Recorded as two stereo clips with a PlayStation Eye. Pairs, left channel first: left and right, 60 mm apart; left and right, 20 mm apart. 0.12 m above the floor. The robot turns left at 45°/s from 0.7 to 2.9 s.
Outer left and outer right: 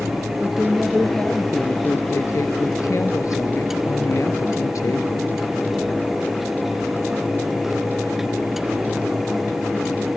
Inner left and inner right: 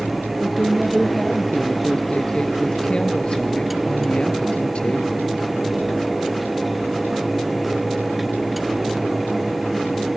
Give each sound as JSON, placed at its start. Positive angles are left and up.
{"t": 0.4, "sound": "a woman speaking", "azimuth_deg": -170, "distance_m": 2.5}